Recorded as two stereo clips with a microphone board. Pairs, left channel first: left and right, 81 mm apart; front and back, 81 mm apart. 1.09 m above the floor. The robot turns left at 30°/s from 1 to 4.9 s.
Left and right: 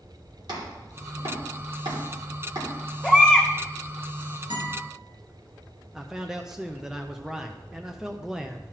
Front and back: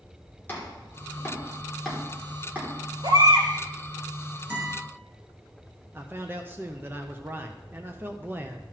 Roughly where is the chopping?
Ahead right.